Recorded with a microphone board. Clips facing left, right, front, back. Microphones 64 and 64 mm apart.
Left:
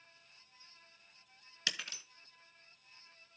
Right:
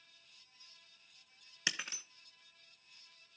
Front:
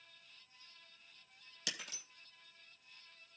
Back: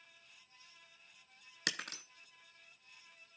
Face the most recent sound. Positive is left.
turn(degrees=-155)